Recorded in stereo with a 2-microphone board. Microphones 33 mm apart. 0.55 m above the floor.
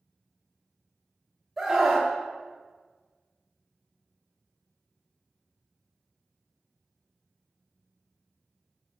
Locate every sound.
1.6 s a scream: 5° right (ahead or behind), 0.8 m